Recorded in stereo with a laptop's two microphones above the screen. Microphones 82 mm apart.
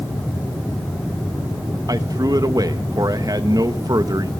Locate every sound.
1.9 s a man speaking: 50° right (ahead or behind), 1.0 m